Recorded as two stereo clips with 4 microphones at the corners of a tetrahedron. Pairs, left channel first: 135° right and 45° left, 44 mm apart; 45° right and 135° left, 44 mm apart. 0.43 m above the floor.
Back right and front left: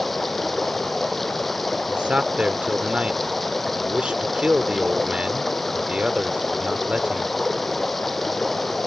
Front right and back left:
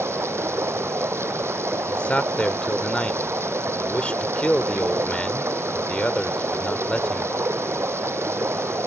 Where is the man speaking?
Straight ahead.